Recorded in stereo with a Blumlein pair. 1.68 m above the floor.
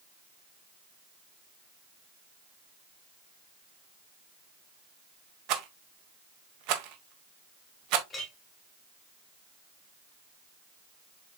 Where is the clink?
15° left, 1.9 m.